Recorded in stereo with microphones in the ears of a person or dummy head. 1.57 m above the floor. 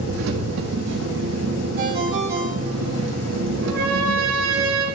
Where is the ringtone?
75° right (ahead or behind), 3.5 m.